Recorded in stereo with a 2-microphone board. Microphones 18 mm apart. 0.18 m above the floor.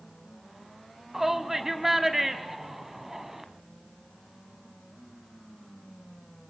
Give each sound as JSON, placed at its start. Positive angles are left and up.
{"t": 1.1, "sound": "a shout", "side_deg": -15, "distance_m": 1.0}